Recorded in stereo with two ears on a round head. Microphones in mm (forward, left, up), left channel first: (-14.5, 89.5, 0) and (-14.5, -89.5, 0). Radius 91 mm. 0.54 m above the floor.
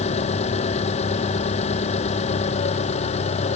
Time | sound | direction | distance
0.0 | an engine running | 35° left (ahead or behind) | ?